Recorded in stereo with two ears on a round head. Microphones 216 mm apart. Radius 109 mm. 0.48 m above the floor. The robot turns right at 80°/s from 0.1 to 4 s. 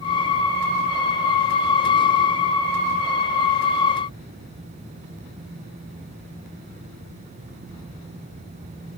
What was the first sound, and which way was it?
Only background noise.